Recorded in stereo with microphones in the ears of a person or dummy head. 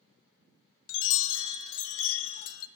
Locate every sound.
0.9 s a chime: 75° left (ahead or behind), 0.9 m